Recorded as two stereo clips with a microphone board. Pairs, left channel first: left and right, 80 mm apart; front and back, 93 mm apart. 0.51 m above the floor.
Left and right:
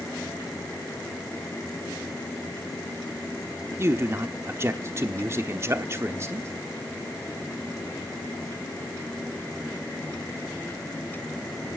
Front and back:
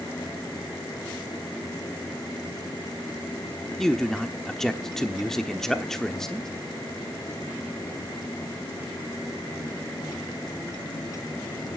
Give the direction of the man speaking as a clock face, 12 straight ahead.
3 o'clock.